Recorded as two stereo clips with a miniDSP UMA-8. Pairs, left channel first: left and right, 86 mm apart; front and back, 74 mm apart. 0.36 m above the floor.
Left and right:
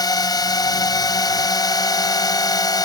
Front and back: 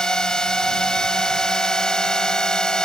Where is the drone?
80° left.